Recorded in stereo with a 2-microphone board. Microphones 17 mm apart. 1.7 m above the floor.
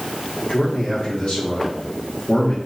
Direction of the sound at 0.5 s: 85° left.